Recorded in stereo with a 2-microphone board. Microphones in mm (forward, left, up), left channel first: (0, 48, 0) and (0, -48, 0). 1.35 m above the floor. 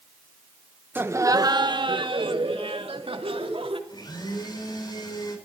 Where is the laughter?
20° right (ahead or behind), 0.9 m; by 3.8 s 75° right (ahead or behind), 3 m.